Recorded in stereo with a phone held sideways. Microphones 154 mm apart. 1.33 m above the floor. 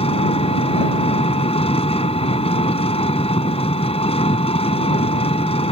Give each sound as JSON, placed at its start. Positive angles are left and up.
{"t": 0.0, "sound": "an engine running", "side_deg": 40}